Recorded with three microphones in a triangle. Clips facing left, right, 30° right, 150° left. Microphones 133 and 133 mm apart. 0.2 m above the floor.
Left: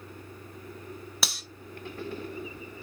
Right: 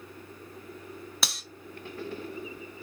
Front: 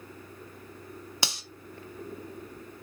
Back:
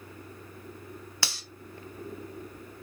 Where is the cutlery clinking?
Straight ahead, 0.6 m.